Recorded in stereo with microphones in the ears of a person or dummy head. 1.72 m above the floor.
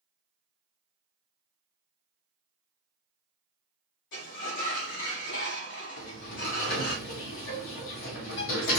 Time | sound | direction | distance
4.1 | a sliding door | 60° left (ahead or behind) | 1.6 m
6.0 | a sliding door | 60° left (ahead or behind) | 1.5 m